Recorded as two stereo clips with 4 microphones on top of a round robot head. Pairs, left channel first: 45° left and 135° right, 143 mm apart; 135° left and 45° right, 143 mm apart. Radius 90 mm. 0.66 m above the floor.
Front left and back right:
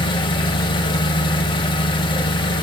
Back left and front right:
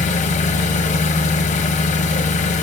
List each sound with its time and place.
0.0 s an engine running: 100° left, 0.7 m